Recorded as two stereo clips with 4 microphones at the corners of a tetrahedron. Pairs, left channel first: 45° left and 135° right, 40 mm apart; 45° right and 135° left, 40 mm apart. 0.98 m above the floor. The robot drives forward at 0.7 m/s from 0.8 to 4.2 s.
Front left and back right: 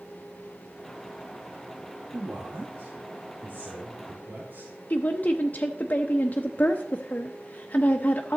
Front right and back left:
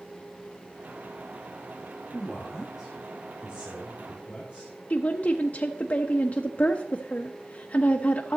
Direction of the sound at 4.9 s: 5° left.